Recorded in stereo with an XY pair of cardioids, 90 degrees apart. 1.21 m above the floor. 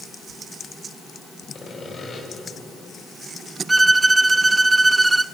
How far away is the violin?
About 0.7 m.